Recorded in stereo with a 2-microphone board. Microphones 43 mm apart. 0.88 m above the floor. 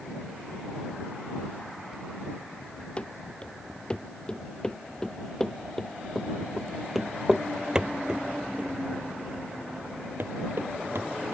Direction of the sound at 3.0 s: 30° left (ahead or behind).